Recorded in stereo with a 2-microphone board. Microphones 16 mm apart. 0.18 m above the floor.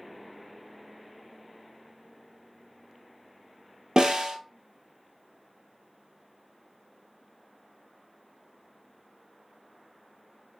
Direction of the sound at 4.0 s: 50° right (ahead or behind).